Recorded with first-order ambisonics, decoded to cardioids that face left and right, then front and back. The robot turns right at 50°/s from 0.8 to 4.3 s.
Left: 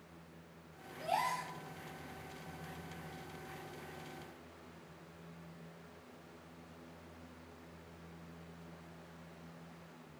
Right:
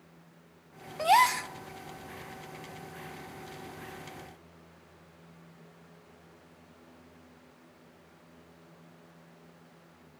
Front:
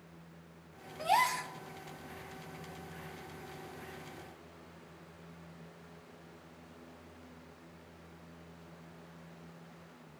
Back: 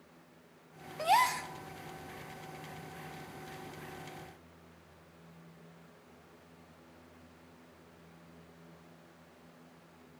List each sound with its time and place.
1.0 s a gasp: 105° right, 0.5 m; by 1.5 s 80° right, 0.5 m